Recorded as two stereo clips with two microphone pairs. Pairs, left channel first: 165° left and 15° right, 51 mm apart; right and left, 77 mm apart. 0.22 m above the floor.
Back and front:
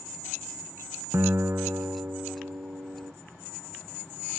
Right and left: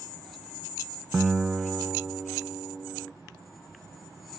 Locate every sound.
1.1 s a guitar: 5° left